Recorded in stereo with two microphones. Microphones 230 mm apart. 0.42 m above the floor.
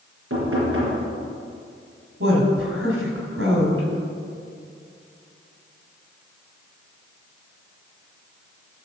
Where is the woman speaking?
70° right (ahead or behind), 3 m.